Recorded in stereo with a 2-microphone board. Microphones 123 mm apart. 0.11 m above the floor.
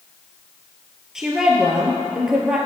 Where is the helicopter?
I don't hear a helicopter.